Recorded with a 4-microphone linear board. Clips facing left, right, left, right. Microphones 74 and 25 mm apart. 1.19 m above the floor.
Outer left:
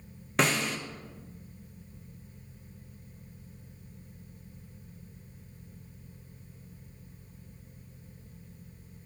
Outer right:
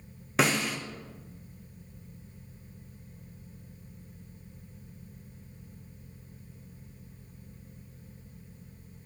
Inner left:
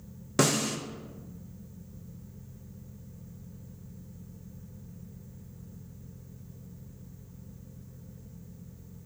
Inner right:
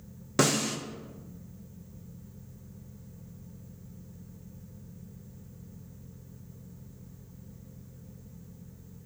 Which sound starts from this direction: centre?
A snare drum, at 0.4 s.